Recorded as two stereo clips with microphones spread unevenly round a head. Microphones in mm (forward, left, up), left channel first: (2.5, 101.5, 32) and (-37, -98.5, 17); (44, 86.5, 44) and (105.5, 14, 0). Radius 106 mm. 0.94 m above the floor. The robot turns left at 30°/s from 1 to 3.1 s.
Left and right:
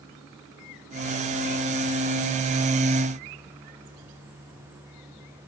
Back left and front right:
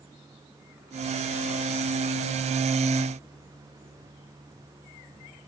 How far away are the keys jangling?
I don't hear keys jangling.